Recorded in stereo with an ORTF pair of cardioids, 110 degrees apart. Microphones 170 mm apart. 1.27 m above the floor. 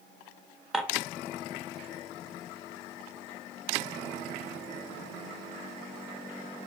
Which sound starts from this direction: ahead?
Dishes clattering, at 0.7 s.